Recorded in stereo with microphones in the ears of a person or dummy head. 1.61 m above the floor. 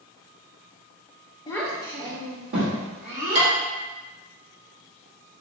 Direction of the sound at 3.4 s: 40° right (ahead or behind).